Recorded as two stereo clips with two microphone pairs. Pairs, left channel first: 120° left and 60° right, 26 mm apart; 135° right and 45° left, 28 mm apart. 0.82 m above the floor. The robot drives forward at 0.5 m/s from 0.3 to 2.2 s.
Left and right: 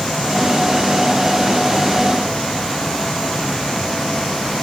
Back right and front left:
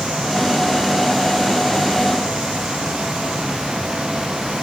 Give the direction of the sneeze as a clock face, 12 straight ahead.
No sneeze in this recording.